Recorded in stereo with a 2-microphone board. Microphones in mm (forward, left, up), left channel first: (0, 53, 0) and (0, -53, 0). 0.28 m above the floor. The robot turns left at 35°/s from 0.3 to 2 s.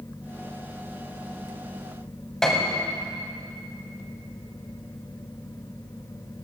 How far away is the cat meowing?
I don't hear a cat meowing.